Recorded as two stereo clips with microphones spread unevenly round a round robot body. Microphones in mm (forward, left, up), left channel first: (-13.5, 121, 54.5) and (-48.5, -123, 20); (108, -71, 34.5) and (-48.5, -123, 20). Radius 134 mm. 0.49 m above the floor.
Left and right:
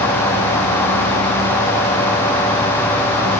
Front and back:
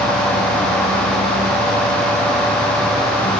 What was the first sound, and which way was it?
Only background noise.